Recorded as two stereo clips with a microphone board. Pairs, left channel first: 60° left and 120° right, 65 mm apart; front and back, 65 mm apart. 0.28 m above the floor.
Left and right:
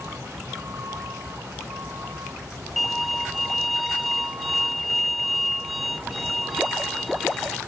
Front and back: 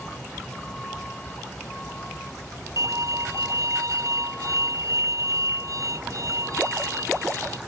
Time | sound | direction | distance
0.0 | a vehicle | 75° right | ?
2.8 | a violin | 150° left | ?